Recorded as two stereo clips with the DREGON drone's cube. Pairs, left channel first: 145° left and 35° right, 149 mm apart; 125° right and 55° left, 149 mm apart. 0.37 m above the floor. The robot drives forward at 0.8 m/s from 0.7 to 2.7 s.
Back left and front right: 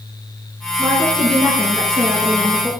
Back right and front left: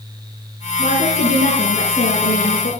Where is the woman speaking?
110° right, 5.5 m; by 2.7 s 120° right, 6 m.